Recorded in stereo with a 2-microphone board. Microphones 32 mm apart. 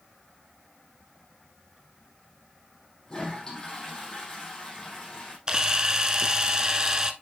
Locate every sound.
3.1 s a toilet flushing: 20° left (ahead or behind), 4.5 m
5.5 s a camera shutter: 25° right (ahead or behind), 0.9 m